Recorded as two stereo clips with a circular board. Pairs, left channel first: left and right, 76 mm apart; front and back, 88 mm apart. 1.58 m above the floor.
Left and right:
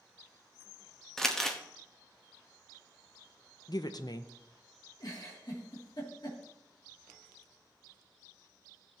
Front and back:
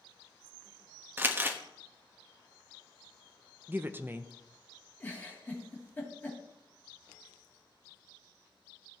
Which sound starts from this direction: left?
A giggle, at 5.0 s.